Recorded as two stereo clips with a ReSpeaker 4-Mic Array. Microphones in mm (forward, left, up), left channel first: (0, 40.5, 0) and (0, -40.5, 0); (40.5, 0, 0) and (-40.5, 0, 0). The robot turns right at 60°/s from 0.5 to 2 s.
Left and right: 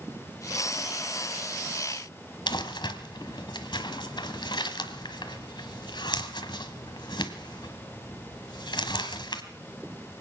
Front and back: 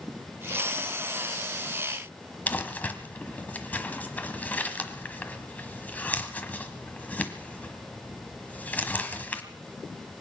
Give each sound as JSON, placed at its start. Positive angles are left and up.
{"t": 2.5, "sound": "crumpling", "azimuth_deg": 70, "distance_m": 1.3}